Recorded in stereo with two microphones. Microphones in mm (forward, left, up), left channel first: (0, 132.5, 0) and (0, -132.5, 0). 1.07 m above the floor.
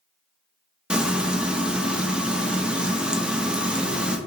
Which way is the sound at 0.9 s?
5° right (ahead or behind).